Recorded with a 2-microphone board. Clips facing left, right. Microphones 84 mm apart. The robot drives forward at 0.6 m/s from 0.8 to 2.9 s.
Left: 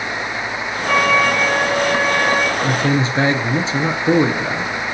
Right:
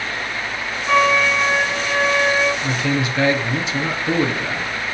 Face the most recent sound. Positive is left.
turn(degrees=30)  # may be behind; listen again after turning